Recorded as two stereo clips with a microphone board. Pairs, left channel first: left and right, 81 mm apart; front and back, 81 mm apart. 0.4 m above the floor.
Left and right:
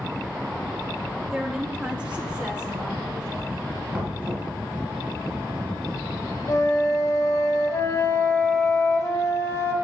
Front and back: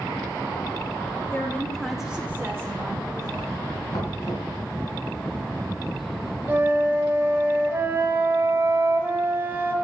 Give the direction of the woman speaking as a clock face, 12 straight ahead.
1 o'clock.